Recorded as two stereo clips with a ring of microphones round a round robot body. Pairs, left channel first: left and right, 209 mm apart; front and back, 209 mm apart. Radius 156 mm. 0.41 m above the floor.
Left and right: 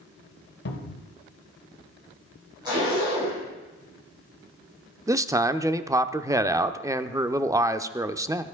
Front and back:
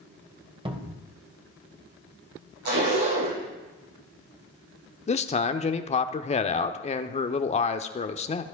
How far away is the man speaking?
About 0.9 m.